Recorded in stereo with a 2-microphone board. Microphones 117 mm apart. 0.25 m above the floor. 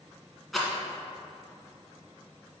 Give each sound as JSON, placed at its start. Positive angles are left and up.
{"t": 0.5, "sound": "a rattle", "side_deg": 0, "distance_m": 1.7}